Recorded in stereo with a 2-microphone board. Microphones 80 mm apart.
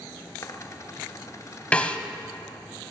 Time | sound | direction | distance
0.4 | a dropped coin | 40° left (ahead or behind) | 0.6 m
1.7 | a snare drum | 15° left (ahead or behind) | 0.6 m